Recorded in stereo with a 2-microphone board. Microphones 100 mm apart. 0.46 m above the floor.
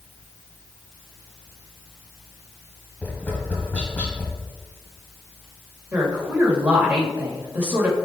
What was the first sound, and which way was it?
Tapping, 15° left (ahead or behind).